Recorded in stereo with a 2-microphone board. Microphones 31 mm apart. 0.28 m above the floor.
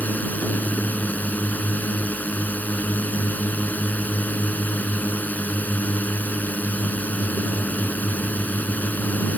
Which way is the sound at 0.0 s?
60° left (ahead or behind).